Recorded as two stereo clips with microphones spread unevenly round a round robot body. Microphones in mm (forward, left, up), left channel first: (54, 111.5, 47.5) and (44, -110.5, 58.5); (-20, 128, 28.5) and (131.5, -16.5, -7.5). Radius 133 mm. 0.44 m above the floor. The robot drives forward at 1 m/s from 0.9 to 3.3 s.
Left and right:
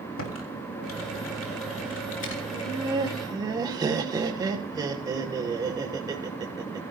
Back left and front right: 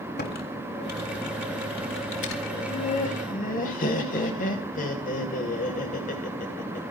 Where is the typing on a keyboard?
95° left, 3.5 m; by 2.4 s 120° left, 4 m.